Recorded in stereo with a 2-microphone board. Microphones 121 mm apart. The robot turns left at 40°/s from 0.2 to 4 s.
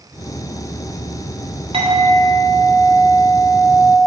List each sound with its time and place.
1.7 s a clink: 130° right, 1.5 m; by 4.0 s 140° left, 1.5 m